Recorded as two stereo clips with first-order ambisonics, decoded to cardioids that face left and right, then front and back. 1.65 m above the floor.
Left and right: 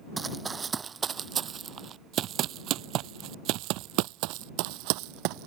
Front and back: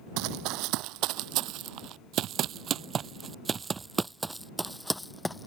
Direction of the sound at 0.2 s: 165° right.